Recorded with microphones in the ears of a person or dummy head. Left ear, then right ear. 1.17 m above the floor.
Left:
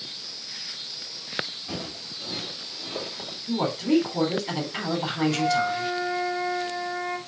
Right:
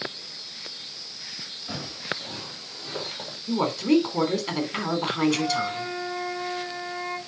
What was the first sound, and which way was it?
Footsteps, 15° right (ahead or behind).